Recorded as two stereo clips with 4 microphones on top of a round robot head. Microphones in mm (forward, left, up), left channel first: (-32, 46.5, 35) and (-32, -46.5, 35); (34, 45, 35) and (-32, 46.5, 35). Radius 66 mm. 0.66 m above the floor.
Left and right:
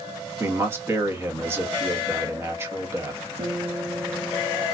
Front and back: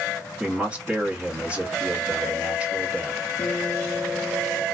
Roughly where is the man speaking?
Behind right.